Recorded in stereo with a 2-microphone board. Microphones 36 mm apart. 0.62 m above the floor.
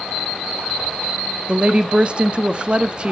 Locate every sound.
1.5 s a woman speaking: 30° right (ahead or behind), 0.6 m